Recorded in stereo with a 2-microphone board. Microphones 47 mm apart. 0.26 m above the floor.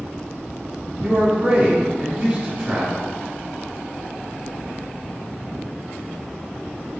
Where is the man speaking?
35° right (ahead or behind), 1.4 m.